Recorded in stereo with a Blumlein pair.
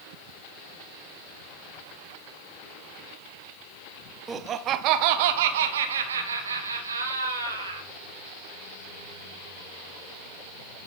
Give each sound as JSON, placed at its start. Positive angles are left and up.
{"t": 4.3, "sound": "laughter", "azimuth_deg": -15, "distance_m": 0.8}